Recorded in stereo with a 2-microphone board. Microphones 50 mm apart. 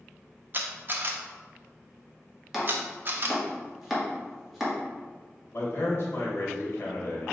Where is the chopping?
5° right (ahead or behind), 1.0 m.